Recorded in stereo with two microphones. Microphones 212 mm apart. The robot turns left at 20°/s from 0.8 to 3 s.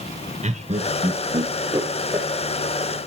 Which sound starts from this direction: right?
Laughter, at 0.4 s.